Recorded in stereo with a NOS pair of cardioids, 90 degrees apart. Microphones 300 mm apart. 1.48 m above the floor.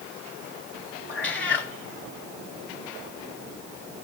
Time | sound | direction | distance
1.1 | a cat meowing | 40° left | 2.5 m